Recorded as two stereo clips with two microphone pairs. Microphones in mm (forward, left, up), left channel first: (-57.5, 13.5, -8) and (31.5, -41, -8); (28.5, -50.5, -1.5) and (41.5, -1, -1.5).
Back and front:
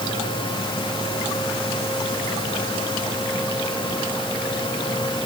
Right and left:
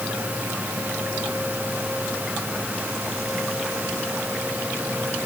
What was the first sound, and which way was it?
Only background noise.